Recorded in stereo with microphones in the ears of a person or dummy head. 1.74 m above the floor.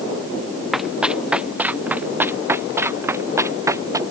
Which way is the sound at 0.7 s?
5° right (ahead or behind).